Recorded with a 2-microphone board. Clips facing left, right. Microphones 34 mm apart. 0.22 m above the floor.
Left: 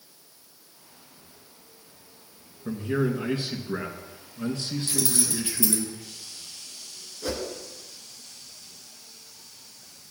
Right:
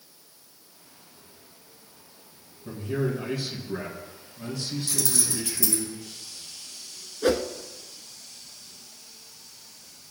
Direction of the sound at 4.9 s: 40° left (ahead or behind).